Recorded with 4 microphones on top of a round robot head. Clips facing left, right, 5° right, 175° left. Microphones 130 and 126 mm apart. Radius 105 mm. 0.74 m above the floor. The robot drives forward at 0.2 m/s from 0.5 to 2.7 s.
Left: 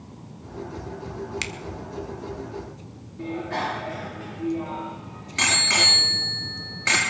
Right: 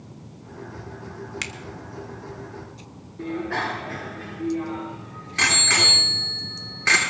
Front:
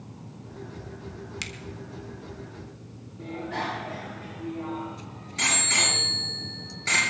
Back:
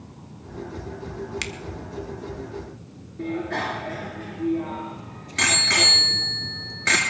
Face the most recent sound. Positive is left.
turn(degrees=155)